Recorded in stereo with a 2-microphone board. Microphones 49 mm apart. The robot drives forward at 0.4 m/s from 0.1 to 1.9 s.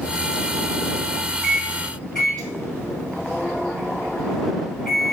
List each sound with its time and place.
1.4 s a microwave: 15° left (ahead or behind), 4.5 m